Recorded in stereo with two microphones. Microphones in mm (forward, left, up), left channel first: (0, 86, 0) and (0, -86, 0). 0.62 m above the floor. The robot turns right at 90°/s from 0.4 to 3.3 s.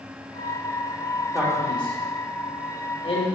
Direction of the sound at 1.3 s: 15° right (ahead or behind).